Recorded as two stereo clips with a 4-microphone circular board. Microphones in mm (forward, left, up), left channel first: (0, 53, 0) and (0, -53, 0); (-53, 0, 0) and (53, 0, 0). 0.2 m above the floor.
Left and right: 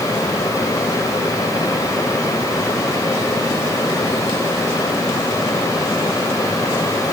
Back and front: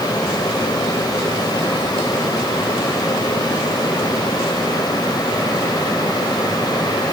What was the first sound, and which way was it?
Only background noise.